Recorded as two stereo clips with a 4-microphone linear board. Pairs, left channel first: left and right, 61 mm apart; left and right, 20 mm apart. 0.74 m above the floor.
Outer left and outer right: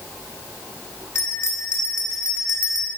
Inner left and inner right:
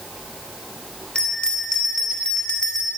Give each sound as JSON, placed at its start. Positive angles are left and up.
{"t": 1.1, "sound": "a bell", "side_deg": 50, "distance_m": 2.5}